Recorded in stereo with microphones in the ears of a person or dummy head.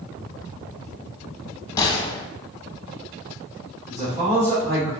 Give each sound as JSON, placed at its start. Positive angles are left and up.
{"t": 1.8, "sound": "a gunshot", "side_deg": 20, "distance_m": 0.6}
{"t": 3.9, "sound": "a man speaking", "side_deg": -25, "distance_m": 1.5}